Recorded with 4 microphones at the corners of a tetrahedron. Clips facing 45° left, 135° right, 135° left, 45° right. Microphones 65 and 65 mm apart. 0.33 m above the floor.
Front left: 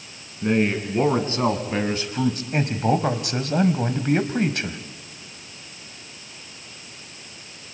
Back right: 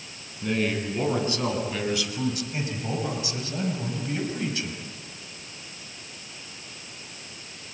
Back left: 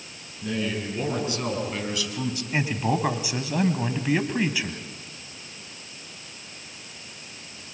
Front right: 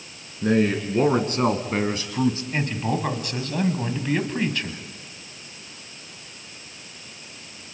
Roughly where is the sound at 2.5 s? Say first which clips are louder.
Front left 9 dB, back left 1 dB; ahead left.